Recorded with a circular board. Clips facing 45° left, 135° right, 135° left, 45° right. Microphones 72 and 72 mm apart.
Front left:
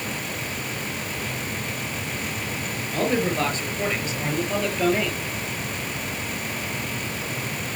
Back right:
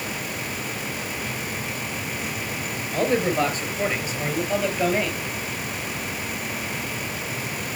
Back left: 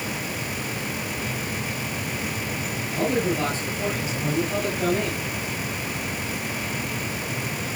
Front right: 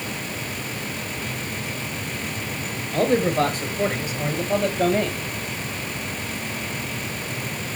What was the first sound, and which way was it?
A man speaking, 50° right.